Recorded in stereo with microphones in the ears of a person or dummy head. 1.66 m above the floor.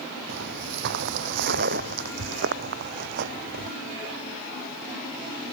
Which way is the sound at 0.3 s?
60° right (ahead or behind).